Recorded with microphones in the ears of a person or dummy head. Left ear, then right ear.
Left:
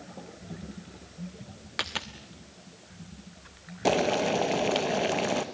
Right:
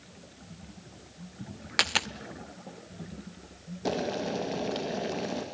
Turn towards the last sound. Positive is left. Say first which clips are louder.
# left 6 dB
turn(degrees=35)  # may be behind; listen again after turning